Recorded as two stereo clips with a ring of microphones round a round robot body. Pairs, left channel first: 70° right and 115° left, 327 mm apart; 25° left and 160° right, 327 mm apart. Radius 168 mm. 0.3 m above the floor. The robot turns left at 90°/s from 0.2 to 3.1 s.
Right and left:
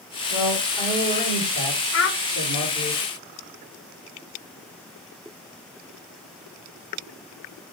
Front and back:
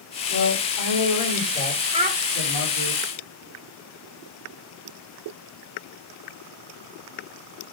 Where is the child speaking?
90° right, 1.3 m; by 2.2 s 110° right, 1.3 m.